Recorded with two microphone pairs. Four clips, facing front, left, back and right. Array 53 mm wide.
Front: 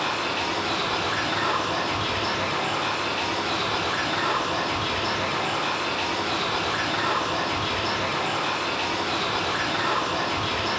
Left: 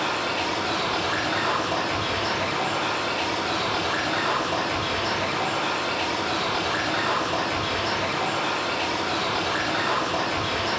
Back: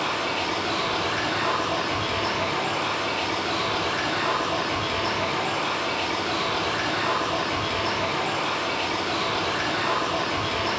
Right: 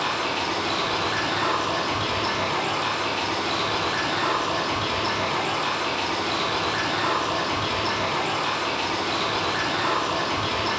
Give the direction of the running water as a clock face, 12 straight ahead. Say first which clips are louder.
Even, even; 3 o'clock.